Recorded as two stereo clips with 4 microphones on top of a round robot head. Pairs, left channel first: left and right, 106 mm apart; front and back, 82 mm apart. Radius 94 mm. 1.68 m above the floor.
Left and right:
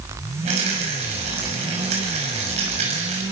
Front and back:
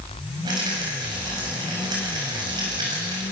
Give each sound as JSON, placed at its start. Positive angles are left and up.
{"t": 0.5, "sound": "a rattle", "azimuth_deg": -125, "distance_m": 5.5}